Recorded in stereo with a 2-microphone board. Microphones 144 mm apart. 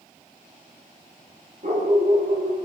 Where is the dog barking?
60° right (ahead or behind), 9 m.